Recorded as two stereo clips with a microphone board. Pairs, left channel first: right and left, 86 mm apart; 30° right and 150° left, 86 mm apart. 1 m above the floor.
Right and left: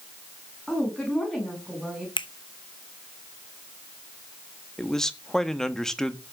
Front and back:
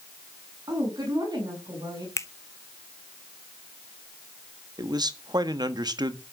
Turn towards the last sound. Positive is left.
turn(degrees=-175)